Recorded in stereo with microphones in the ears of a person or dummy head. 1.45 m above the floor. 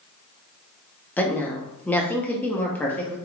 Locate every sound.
1.2 s a woman speaking: 10° left (ahead or behind), 0.8 m